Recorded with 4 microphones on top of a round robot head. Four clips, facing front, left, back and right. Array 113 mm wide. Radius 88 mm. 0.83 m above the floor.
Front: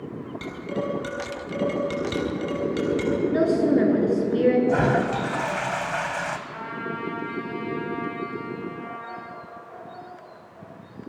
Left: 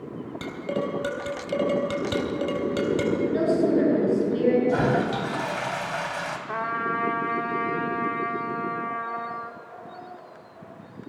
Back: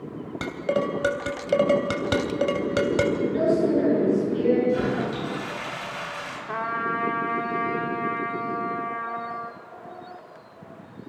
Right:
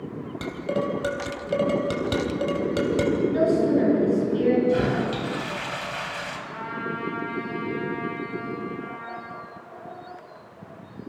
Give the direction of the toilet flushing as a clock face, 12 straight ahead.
11 o'clock.